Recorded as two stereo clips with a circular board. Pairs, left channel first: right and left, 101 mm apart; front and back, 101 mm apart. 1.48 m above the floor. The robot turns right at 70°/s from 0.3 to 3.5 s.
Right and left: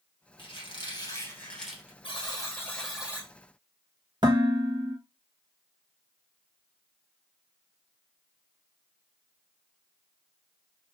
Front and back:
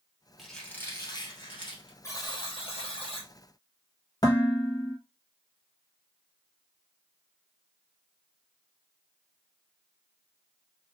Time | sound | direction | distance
0.4 | a squeak | 95° right | 2.5 m
2.0 | a buzzer | 60° right | 1.9 m
4.2 | dishes clattering | 50° left | 1.4 m